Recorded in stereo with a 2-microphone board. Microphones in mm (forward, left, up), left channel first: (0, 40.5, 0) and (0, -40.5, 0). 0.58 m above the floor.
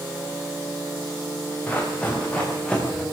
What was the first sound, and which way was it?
Running footsteps, 20° left (ahead or behind).